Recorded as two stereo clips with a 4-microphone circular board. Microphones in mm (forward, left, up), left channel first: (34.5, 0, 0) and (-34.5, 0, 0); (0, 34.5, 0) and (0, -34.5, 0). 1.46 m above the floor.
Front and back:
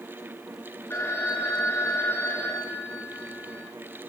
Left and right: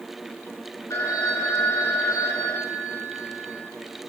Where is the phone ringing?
50° left, 3 m.